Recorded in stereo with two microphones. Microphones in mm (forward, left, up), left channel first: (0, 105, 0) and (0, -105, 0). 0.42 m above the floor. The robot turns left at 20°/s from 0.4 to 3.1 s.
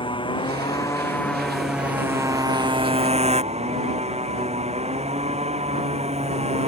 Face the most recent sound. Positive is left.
turn(degrees=-30)